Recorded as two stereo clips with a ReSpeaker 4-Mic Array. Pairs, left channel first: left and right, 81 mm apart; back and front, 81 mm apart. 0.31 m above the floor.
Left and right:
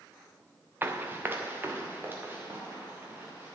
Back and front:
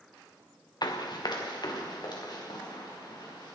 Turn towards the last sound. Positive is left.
turn(degrees=-155)